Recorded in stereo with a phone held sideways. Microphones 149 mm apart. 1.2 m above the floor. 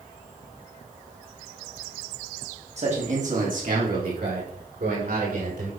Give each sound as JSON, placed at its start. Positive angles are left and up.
{"t": 2.8, "sound": "a man speaking", "side_deg": -50, "distance_m": 3.0}